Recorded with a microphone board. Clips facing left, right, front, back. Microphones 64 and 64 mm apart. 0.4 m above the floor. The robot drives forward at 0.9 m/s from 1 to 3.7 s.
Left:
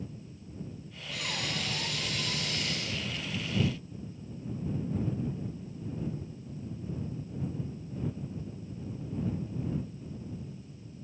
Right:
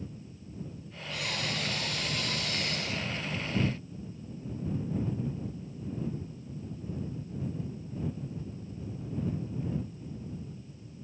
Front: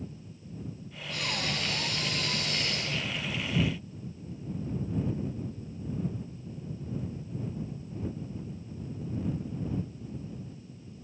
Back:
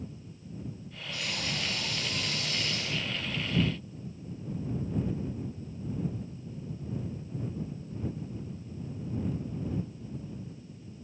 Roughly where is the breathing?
Ahead.